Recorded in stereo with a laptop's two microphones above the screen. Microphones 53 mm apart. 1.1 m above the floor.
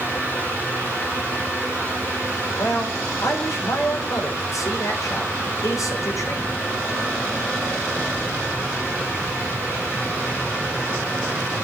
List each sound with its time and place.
0.0 s a fan: 35° left (ahead or behind), 5 m
2.6 s a man speaking: 80° left, 4.5 m